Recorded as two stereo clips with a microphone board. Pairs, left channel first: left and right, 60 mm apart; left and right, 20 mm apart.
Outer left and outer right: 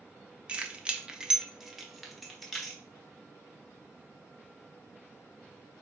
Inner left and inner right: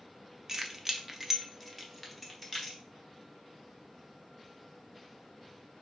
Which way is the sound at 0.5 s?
20° right (ahead or behind).